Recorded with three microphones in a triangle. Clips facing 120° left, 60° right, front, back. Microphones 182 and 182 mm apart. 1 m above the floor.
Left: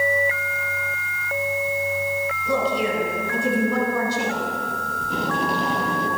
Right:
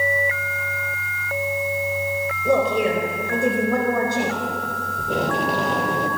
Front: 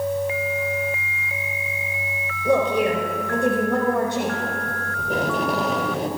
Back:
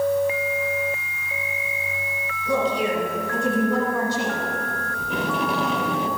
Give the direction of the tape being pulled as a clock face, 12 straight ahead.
2 o'clock.